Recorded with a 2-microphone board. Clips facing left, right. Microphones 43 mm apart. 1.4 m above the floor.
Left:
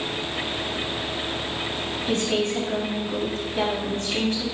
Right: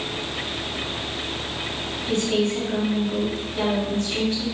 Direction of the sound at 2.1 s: 45° left (ahead or behind).